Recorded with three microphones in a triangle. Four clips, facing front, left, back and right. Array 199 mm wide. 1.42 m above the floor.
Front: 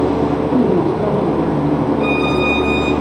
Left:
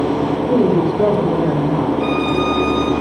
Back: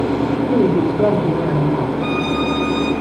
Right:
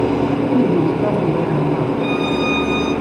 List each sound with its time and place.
0.5 s a woman speaking: 120° left, 3.5 m
2.0 s a violin: 15° right, 6 m